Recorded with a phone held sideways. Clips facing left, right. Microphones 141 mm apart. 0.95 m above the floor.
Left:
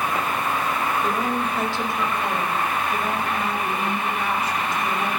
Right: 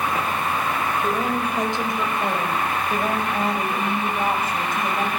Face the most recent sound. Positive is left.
turn(degrees=-55)  # may be behind; listen again after turning